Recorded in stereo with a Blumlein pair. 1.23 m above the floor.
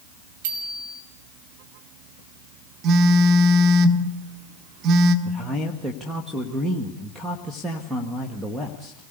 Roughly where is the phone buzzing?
Ahead right.